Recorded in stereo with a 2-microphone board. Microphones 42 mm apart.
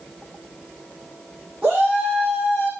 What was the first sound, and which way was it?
A shout, 25° right (ahead or behind).